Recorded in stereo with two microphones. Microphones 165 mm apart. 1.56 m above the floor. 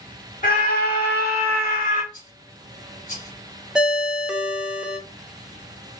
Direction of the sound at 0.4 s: 55° left (ahead or behind).